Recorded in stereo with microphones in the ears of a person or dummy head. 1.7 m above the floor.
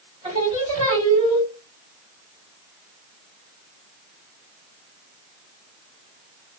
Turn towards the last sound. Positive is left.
turn(degrees=-20)  # may be behind; listen again after turning